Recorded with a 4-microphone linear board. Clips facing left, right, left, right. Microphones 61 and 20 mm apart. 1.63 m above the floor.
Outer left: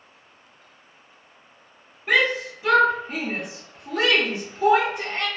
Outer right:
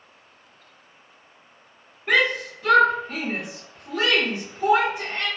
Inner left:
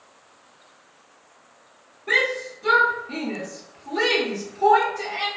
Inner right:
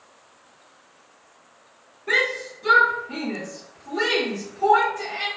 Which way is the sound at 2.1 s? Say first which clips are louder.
Even, inner left 1 dB; centre (ahead or behind).